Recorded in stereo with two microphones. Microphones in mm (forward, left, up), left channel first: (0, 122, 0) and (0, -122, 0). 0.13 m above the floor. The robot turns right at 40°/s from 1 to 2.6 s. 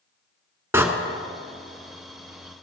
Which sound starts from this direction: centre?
A door slam, at 0.7 s.